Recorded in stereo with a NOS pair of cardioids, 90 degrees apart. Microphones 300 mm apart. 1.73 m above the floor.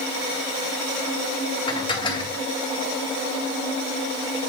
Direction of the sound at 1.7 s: 15° left.